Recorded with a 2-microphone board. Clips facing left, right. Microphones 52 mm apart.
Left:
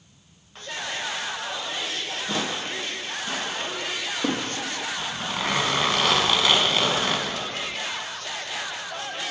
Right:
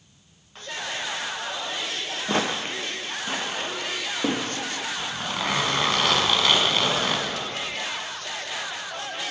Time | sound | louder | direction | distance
2.3 | footsteps | right 4 dB | 50° right (ahead or behind) | 1.3 m
5.0 | a zipper | even | 5° left (ahead or behind) | 0.9 m